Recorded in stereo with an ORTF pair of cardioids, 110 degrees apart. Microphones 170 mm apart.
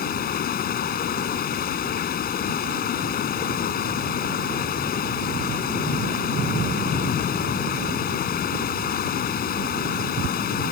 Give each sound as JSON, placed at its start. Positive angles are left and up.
{"t": 0.0, "sound": "running water", "azimuth_deg": 60}